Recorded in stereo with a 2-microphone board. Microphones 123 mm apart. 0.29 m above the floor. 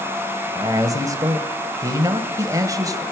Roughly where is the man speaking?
Right.